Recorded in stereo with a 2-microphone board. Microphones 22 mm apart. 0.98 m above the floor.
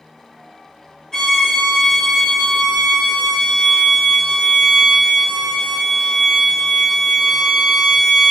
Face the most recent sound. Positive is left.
turn(degrees=20)  # may be behind; listen again after turning